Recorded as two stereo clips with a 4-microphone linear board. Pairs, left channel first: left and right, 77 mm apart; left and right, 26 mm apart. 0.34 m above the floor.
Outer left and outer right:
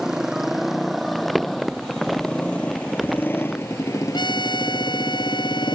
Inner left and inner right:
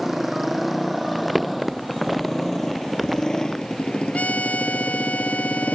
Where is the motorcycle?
5° right (ahead or behind); by 5.8 s 85° left.